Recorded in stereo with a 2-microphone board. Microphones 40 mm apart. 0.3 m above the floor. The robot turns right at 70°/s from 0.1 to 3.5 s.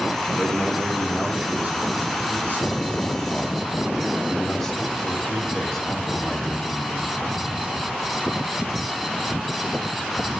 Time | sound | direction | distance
0.4 | a man speaking | 145° left | 2.5 m